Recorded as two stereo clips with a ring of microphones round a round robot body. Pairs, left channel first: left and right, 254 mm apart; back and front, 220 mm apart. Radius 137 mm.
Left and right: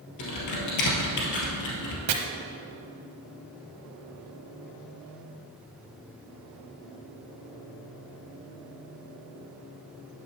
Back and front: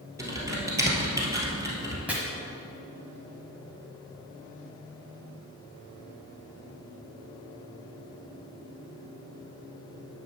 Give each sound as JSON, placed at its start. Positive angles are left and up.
{"t": 0.2, "sound": "typing on a keyboard", "azimuth_deg": 75, "distance_m": 2.0}
{"t": 2.1, "sound": "chopping", "azimuth_deg": -85, "distance_m": 0.9}